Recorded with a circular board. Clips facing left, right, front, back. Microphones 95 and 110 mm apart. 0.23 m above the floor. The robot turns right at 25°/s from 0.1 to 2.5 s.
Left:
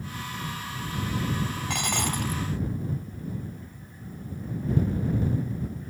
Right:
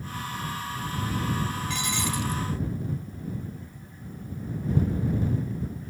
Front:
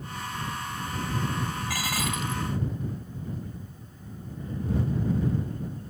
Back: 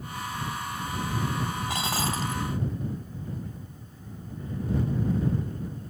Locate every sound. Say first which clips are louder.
1.7 s dishes clattering: left 1 dB, back 2 dB; 115° left; by 2.4 s 130° left